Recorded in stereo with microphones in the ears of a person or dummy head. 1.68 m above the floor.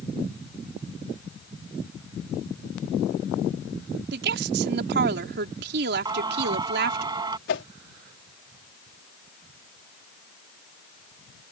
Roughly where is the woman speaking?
Right.